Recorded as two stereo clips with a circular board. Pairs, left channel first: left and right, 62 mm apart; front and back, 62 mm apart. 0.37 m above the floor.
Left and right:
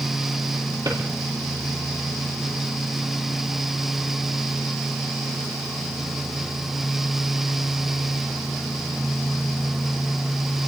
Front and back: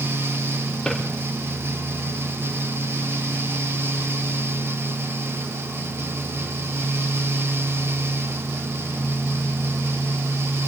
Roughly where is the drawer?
Right.